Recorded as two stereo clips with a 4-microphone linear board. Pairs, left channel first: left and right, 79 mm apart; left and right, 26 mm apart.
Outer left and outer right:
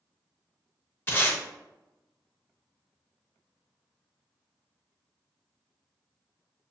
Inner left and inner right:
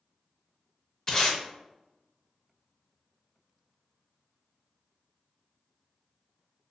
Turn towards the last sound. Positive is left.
turn(degrees=25)  # may be behind; listen again after turning